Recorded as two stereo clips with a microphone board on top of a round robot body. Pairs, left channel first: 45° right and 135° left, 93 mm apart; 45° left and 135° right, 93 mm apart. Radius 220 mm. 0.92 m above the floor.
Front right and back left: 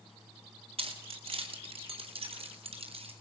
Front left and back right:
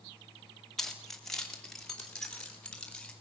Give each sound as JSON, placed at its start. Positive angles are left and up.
{"t": 0.8, "sound": "keys jangling", "azimuth_deg": 130, "distance_m": 2.0}